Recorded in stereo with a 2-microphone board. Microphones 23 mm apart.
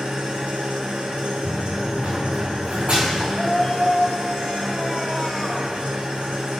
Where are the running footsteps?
75° right (ahead or behind), 4.5 m; by 3.2 s 55° right (ahead or behind), 3.5 m.